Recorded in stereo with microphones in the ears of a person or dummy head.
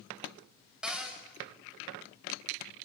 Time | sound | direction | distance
0.8 | a cupboard door | centre (ahead or behind) | 0.6 m